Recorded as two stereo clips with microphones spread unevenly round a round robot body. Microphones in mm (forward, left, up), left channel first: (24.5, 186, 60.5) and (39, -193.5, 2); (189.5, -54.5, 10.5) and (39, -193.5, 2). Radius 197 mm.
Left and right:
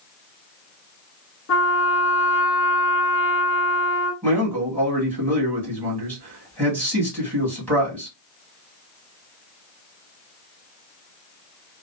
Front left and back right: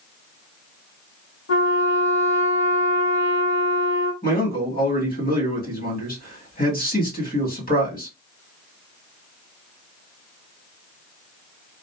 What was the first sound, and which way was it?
A trumpet, 35° left.